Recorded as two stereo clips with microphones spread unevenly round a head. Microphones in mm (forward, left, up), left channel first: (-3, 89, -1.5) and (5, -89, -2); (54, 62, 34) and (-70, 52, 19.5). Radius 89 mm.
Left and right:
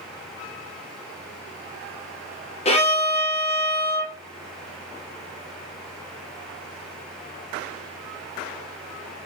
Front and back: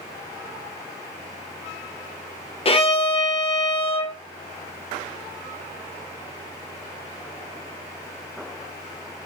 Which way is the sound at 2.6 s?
45° left.